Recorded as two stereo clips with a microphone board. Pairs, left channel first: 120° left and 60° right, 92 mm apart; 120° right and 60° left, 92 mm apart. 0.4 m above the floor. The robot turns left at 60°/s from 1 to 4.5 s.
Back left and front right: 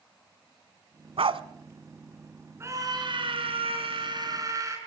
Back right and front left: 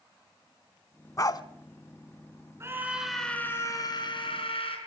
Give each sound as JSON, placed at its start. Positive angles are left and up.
{"t": 1.2, "sound": "a dog barking", "azimuth_deg": -65, "distance_m": 0.7}
{"t": 2.6, "sound": "a scream", "azimuth_deg": 0, "distance_m": 4.0}